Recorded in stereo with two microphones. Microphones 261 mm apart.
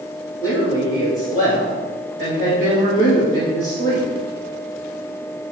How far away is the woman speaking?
About 1.6 m.